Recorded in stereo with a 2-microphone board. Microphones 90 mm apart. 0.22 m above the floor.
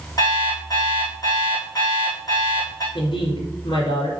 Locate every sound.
0.2 s an alarm clock: 45° left (ahead or behind), 5 m
3.0 s a woman speaking: 70° left (ahead or behind), 3.5 m